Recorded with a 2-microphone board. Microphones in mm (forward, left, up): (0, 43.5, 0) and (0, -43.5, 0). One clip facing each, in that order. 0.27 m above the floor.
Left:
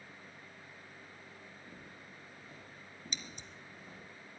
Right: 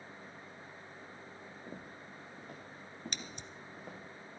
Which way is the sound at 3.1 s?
65° right (ahead or behind).